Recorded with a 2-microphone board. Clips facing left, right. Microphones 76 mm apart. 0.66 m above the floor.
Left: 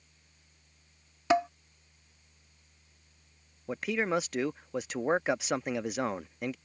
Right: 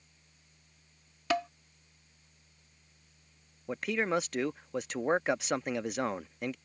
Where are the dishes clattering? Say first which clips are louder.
Left 5 dB; 20° left (ahead or behind).